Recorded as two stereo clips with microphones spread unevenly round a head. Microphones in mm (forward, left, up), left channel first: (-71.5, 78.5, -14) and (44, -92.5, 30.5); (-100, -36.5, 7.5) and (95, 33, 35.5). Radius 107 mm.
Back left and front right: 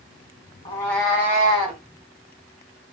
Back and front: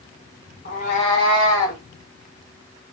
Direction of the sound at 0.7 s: 160° right.